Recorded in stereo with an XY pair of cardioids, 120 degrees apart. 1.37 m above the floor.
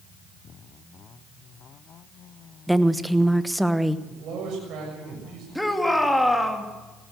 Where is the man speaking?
65° right, 7 m.